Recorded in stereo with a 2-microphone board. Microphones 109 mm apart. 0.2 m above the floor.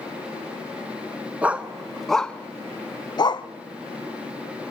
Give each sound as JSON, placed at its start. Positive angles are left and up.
{"t": 1.4, "sound": "a dog barking", "side_deg": -15, "distance_m": 1.0}